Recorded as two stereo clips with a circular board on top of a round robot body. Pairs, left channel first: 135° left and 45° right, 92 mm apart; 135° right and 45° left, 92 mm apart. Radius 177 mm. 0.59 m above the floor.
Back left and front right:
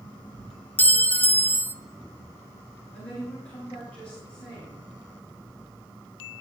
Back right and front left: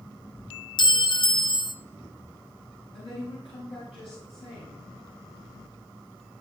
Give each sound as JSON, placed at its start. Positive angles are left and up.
{"t": 0.8, "sound": "a clink", "azimuth_deg": -160, "distance_m": 0.8}
{"t": 2.9, "sound": "a woman speaking", "azimuth_deg": -150, "distance_m": 7.0}